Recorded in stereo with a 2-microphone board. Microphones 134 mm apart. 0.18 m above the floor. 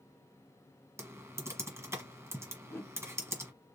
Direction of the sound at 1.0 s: 20° right (ahead or behind).